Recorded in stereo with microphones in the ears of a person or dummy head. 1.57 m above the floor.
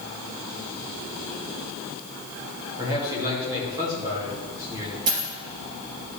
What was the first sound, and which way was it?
A man speaking, 15° right (ahead or behind).